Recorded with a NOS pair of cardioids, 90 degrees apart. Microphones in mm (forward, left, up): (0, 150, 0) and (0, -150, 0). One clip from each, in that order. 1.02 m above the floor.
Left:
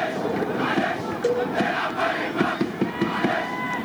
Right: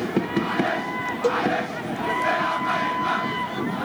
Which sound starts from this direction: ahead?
A cowbell, at 1.2 s.